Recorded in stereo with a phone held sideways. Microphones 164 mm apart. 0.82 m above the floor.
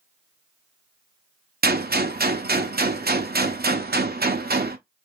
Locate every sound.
1.6 s a gunshot: 70° right (ahead or behind), 0.6 m